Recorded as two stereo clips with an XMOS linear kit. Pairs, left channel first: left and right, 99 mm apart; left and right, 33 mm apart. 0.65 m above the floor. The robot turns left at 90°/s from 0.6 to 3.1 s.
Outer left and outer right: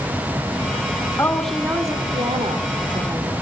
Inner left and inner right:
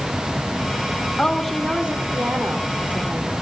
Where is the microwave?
No microwave in this recording.